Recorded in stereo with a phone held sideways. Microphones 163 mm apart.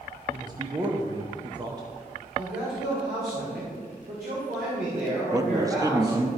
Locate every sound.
0.3 s a man speaking: 25° right (ahead or behind), 0.8 m
2.4 s a man speaking: 85° right, 2.5 m
5.3 s a man speaking: 25° right (ahead or behind), 0.8 m